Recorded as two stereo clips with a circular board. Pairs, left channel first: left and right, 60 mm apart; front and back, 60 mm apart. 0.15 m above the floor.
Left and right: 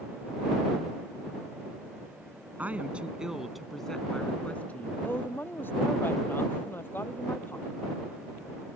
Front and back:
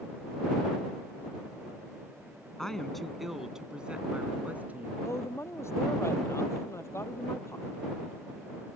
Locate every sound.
2.6 s a woman speaking: 70° right; by 4.9 s 135° left
5.0 s a woman speaking: 40° left